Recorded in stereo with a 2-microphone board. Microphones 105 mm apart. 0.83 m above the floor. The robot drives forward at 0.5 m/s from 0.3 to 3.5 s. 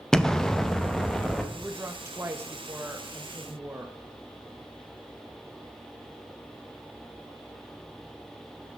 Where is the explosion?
5° left (ahead or behind), 0.5 m.